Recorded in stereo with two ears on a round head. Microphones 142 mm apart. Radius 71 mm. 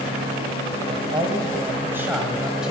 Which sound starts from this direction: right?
A man speaking, at 0.9 s.